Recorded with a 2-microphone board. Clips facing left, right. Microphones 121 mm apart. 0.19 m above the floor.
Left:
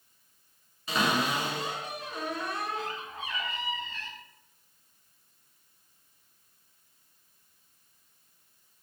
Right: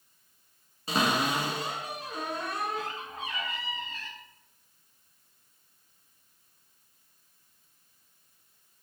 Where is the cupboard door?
35° right (ahead or behind), 0.6 m.